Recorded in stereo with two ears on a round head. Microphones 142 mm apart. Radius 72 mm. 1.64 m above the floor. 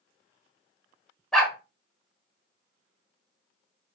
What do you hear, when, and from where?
1.3 s a dog barking: 5° left (ahead or behind), 1.5 m